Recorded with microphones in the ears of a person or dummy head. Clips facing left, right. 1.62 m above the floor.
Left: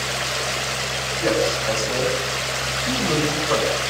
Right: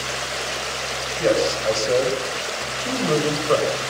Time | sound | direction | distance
1.2 | a man speaking | 60° right (ahead or behind) | 9.5 m